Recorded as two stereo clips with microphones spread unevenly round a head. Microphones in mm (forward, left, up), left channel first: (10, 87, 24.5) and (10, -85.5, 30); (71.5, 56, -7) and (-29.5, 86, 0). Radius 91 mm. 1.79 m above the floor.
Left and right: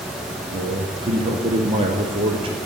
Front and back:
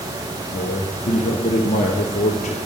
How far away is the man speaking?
About 1.1 m.